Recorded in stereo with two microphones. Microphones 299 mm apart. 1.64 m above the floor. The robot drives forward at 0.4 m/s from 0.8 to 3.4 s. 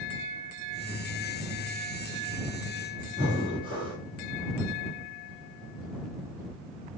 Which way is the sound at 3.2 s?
15° right (ahead or behind).